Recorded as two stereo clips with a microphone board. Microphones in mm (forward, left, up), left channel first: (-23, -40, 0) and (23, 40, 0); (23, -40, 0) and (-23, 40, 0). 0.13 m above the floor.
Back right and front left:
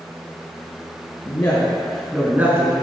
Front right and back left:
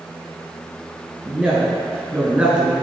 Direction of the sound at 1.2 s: 165° right.